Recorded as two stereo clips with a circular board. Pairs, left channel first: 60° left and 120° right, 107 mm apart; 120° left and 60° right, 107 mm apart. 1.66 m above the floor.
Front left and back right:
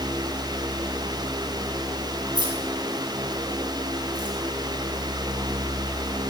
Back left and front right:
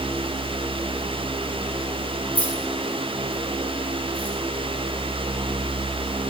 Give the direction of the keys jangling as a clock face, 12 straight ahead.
5 o'clock.